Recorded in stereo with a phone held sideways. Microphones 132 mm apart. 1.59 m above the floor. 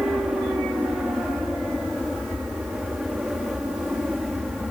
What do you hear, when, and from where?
0.0 s an aircraft: 5° right (ahead or behind)